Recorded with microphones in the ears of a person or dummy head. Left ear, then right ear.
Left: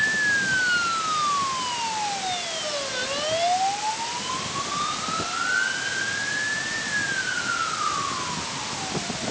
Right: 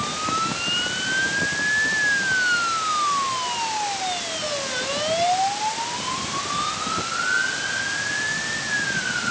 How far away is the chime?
I don't hear a chime.